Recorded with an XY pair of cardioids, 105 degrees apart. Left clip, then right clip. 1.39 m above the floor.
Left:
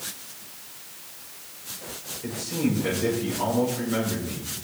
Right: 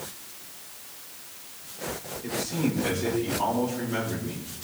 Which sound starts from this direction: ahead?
A man speaking, at 2.2 s.